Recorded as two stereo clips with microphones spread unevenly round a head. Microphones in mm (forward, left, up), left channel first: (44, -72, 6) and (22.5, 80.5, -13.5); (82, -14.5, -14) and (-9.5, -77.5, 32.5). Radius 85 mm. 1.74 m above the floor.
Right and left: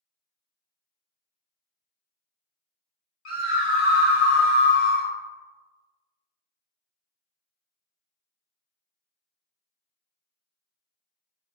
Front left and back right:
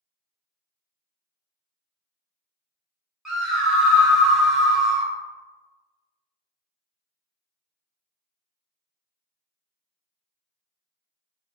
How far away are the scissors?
I don't hear scissors.